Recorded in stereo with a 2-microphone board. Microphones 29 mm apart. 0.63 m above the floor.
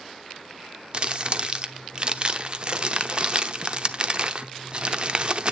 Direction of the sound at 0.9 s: 35° right (ahead or behind).